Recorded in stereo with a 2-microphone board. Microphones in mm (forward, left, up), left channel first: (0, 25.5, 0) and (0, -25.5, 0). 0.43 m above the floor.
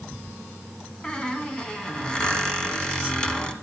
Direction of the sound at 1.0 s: 20° left (ahead or behind).